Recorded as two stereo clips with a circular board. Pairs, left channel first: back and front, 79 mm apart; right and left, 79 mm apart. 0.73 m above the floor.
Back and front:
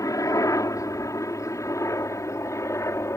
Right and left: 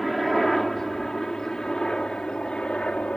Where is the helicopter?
Straight behind; by 3.2 s 160° right.